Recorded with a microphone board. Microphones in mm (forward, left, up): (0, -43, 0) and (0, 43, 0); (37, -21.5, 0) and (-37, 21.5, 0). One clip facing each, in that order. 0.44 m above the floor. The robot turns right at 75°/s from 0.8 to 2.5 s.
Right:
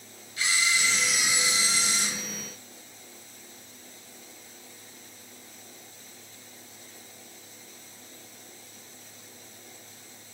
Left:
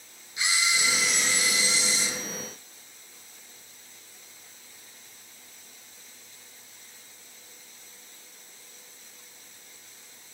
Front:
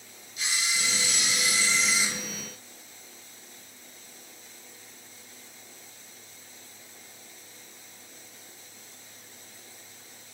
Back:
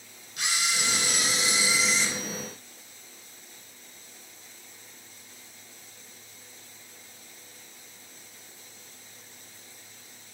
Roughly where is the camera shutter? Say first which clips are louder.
Even, back 1 dB; behind.